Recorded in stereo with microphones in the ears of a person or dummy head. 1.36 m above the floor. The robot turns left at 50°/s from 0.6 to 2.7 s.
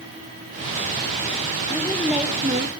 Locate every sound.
1.7 s a woman speaking: 20° left, 1.9 m; by 2.7 s 35° right, 1.9 m